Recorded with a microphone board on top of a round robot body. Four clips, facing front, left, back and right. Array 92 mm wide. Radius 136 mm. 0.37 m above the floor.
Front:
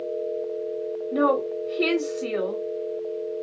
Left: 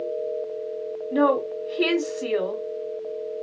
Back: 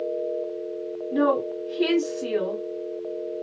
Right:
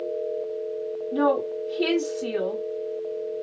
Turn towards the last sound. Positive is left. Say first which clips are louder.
# left 2 dB, even
turn(degrees=95)